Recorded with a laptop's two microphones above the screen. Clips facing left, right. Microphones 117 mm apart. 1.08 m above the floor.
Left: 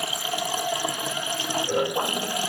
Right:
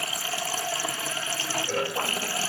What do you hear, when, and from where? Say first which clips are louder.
0.0 s running water: left 4 dB; 15° left (ahead or behind)